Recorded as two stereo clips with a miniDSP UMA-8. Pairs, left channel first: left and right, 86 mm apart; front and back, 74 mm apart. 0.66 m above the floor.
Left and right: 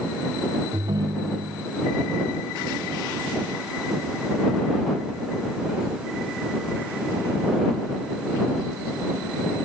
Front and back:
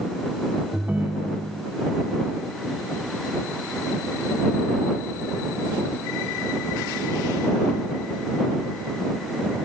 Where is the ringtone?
115° right.